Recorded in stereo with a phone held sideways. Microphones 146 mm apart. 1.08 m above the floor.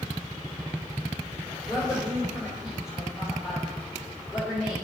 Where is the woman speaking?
Centre (ahead or behind), 3 m.